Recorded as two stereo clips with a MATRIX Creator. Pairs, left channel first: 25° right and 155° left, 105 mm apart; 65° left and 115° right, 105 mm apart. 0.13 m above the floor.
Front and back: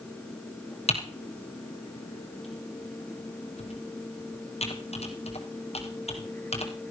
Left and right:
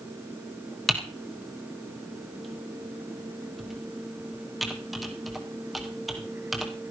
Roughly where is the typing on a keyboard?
Ahead right.